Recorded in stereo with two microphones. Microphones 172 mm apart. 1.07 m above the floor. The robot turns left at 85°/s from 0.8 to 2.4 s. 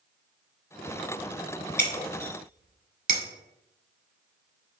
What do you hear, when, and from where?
1.8 s breaking glass: 55° right (ahead or behind), 1.0 m; by 3.2 s 65° right (ahead or behind), 1.0 m